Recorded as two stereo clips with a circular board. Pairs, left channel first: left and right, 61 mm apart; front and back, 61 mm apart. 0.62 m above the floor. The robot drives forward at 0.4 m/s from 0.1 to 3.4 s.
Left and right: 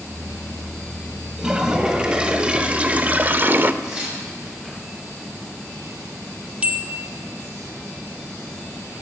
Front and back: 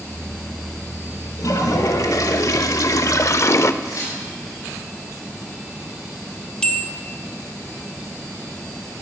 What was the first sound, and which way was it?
A toilet flushing, 15° right.